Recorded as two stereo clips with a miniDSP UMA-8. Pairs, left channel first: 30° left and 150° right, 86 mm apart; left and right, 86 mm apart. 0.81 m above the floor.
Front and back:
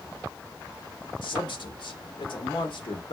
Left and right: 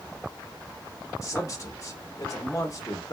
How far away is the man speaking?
About 1.3 m.